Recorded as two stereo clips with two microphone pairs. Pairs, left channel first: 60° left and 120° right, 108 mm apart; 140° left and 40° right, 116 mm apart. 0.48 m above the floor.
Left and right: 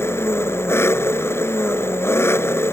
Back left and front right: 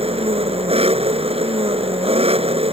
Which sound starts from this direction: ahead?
An engine running, at 0.0 s.